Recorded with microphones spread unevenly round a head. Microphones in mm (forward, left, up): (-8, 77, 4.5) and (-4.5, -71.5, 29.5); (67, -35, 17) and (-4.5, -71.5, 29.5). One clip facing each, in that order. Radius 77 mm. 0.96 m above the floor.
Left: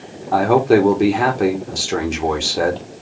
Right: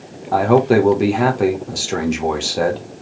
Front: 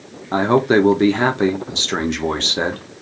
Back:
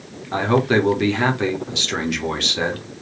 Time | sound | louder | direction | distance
0.3 | a man speaking | even, front 3 dB | 10° left | 1.1 m